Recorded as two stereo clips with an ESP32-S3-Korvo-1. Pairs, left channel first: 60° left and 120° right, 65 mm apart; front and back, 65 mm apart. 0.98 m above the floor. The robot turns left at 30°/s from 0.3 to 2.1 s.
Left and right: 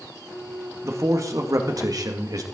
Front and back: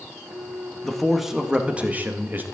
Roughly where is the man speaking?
Right.